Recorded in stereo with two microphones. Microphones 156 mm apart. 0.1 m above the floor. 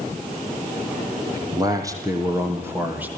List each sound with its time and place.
1.3 s a man speaking: 25° right (ahead or behind), 4 m; by 3.1 s 10° right (ahead or behind), 3.5 m